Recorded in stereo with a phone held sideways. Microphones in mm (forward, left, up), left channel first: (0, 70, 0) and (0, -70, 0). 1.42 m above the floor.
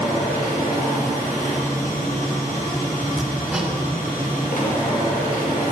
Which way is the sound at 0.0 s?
70° left (ahead or behind).